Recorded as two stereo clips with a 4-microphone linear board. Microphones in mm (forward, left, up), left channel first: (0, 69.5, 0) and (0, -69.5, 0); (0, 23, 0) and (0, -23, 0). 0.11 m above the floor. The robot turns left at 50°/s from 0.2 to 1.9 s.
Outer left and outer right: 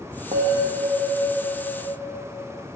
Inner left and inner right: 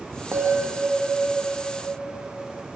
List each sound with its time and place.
0.3 s a bell: 115° right, 6 m; by 2.3 s 165° left, 6 m